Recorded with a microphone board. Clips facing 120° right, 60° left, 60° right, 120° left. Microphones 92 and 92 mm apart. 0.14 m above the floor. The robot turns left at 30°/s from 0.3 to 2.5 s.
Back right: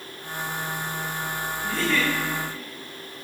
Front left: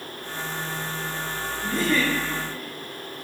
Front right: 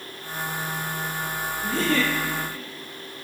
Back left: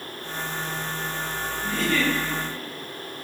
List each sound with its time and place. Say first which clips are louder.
1.6 s a giggle: front left 2 dB, front right 1 dB; 5° right, 4 m; by 2.1 s 20° right, 4 m